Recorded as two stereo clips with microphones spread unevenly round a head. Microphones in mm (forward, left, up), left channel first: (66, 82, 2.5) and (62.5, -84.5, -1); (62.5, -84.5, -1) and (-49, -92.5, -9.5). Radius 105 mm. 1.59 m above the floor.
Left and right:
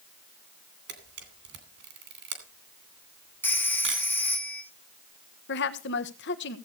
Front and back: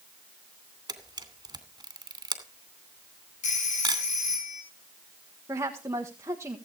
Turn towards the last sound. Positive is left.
turn(degrees=110)